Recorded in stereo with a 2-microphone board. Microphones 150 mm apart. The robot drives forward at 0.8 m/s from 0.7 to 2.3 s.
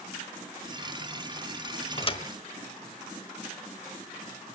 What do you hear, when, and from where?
2.0 s a thud: 40° left (ahead or behind), 0.9 m; by 2.2 s 35° left (ahead or behind), 1.1 m